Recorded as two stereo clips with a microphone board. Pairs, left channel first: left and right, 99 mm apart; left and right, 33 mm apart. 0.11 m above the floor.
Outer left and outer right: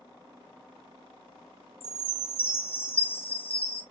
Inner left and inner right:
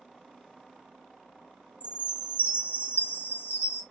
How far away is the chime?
About 2 m.